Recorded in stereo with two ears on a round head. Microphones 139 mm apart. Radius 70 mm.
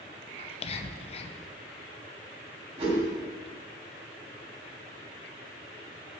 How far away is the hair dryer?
I don't hear a hair dryer.